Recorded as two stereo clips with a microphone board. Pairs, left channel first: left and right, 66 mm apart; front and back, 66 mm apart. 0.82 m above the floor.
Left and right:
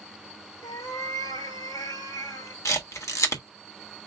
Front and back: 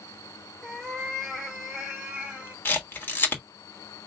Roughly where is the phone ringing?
I don't hear a phone ringing.